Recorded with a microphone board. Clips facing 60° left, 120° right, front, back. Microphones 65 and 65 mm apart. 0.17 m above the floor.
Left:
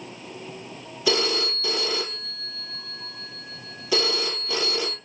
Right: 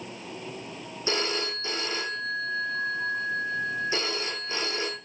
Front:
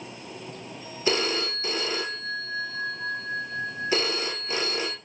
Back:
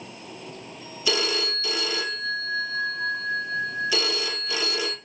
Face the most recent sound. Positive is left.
turn(degrees=55)